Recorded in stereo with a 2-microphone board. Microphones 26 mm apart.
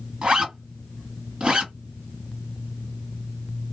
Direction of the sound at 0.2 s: 35° right (ahead or behind).